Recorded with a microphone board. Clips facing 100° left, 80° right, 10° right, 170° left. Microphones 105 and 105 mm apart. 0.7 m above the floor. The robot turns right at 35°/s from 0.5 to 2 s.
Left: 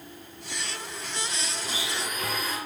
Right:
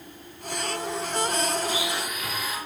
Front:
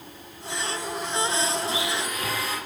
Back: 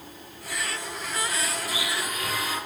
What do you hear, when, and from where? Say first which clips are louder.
1.6 s a blender: right 5 dB, front 3 dB; 40° left, 7 m; by 2.6 s 50° left, 7 m